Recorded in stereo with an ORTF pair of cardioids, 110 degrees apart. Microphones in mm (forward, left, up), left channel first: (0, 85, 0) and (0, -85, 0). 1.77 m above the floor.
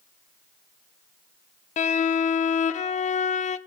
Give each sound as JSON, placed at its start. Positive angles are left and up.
{"t": 1.8, "sound": "a violin", "azimuth_deg": 40, "distance_m": 0.5}